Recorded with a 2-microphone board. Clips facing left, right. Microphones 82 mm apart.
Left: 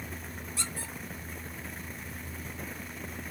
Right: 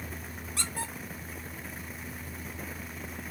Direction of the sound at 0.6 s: 75° right (ahead or behind).